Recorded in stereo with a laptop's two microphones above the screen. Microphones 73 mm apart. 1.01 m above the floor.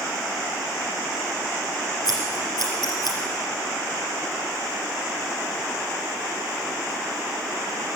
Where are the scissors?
65° left (ahead or behind), 3.5 m.